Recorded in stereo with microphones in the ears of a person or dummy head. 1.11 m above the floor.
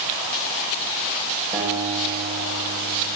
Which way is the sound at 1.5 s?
25° right (ahead or behind).